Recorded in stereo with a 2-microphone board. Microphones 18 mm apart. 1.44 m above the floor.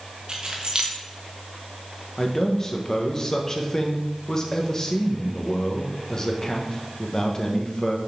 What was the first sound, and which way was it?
Keys jangling, 50° right (ahead or behind).